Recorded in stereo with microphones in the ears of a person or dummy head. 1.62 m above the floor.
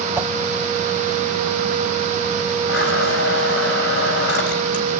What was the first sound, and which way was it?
A whoosh, 15° right (ahead or behind).